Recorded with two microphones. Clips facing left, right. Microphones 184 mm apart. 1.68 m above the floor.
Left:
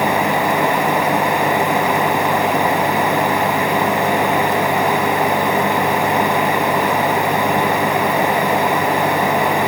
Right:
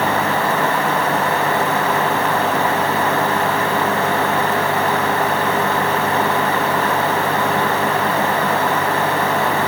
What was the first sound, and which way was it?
Only background noise.